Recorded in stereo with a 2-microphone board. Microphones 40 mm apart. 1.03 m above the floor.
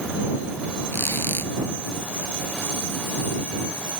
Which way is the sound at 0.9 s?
70° left (ahead or behind).